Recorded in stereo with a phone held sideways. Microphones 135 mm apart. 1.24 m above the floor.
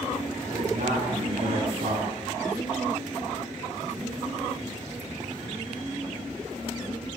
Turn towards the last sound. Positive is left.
turn(degrees=-80)